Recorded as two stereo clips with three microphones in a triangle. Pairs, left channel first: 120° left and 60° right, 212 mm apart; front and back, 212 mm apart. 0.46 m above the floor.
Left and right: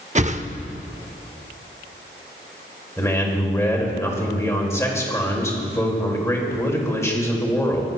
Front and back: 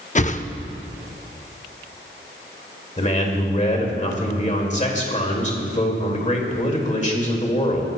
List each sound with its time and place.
0.1 s a whoosh: 30° right, 0.5 m
3.0 s a man speaking: 45° left, 2.0 m